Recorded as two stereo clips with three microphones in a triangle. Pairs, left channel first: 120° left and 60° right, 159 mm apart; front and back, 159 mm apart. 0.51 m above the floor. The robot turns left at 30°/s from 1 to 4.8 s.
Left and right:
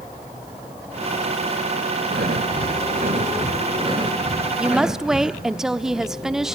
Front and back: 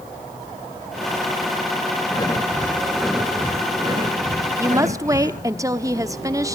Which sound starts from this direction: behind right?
A woman speaking, at 4.6 s.